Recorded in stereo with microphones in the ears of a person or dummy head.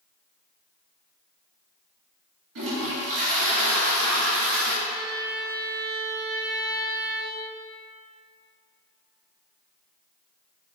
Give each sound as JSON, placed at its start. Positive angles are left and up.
{"t": 2.5, "sound": "a toilet flushing", "side_deg": -80, "distance_m": 2.0}
{"t": 4.8, "sound": "a violin", "side_deg": -15, "distance_m": 0.8}